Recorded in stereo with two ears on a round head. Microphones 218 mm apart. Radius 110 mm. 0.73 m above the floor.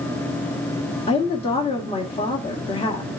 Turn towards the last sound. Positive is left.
turn(degrees=25)  # may be behind; listen again after turning